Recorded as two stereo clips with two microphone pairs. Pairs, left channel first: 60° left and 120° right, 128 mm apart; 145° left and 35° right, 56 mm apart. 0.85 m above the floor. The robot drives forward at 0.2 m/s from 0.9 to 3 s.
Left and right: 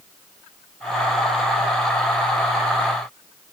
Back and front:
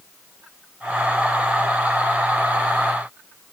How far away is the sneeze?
No sneeze in this recording.